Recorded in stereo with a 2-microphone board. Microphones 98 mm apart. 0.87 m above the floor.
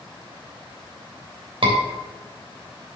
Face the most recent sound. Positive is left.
turn(degrees=-70)  # may be behind; listen again after turning